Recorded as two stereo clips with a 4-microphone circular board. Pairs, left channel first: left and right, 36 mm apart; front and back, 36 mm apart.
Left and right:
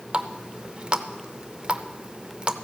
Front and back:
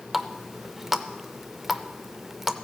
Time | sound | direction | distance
0.1 | a running tap | 110° right | 0.5 m